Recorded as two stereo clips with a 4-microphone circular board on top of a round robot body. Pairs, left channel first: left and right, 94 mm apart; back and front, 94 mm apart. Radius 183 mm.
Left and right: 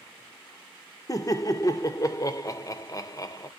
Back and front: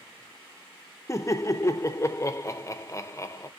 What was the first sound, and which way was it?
Laughter, 130° left.